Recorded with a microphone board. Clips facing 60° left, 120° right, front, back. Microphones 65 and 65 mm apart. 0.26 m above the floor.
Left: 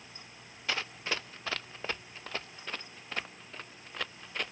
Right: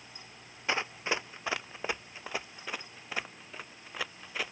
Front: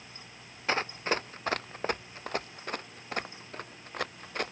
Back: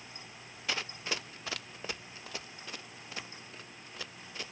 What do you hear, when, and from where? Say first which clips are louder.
0.7 s running footsteps: right 3 dB, front 7 dB; 50° right; by 4.5 s 35° right